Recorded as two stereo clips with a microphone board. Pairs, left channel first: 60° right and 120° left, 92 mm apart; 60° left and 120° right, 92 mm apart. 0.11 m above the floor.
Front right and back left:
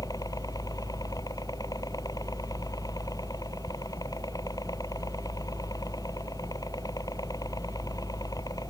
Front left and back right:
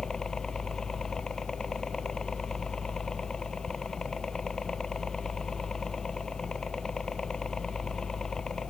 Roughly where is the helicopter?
Ahead right.